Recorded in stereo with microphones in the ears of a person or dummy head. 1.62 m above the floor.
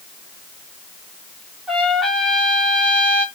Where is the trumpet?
Centre (ahead or behind), 1.4 m.